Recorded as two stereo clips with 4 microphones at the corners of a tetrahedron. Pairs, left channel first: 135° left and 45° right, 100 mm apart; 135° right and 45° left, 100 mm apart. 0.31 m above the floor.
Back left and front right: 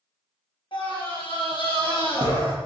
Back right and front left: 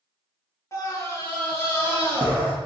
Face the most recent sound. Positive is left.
turn(degrees=155)